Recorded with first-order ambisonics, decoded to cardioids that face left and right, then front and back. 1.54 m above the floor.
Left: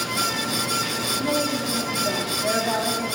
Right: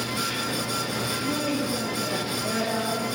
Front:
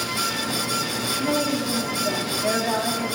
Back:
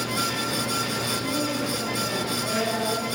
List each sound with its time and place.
1.2 s a woman speaking: 30° left, 3.5 m